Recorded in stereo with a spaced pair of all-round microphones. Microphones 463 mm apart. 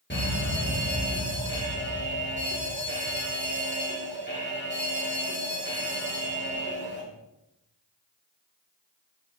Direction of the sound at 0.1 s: 25° left (ahead or behind).